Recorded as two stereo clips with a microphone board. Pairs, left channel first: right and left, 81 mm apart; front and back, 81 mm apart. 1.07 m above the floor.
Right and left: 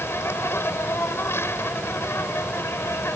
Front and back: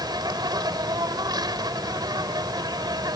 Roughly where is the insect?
Behind right.